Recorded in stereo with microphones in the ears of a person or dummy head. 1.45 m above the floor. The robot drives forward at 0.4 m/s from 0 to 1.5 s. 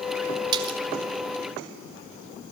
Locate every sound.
0.5 s a splash: 25° right (ahead or behind), 2.5 m